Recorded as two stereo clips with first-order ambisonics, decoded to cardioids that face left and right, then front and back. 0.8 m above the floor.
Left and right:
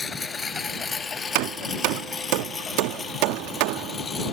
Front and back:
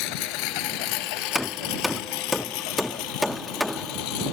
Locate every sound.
0.0 s a lawn mower: 15° left
1.4 s hammering: 85° right